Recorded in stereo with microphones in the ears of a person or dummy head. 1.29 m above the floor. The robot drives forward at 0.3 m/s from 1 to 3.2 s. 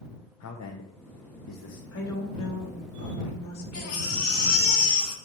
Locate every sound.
0.4 s a man speaking: 75° left (ahead or behind), 0.5 m; by 1.8 s 55° left (ahead or behind), 0.6 m
1.9 s a woman speaking: 70° left (ahead or behind), 1.3 m; by 4.7 s 65° left (ahead or behind), 1.3 m
3.7 s a baby crying: 70° left (ahead or behind), 1.2 m